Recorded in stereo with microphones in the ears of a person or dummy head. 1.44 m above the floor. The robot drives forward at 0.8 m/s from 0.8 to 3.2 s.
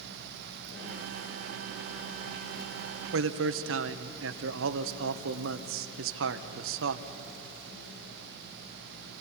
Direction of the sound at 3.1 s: 70° right (ahead or behind).